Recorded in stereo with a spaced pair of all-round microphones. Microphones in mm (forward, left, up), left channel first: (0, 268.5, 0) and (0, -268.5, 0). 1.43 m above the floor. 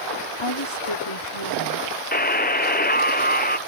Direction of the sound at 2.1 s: 15° left (ahead or behind).